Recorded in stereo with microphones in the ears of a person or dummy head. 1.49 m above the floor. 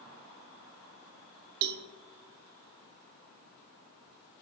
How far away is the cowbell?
About 0.9 m.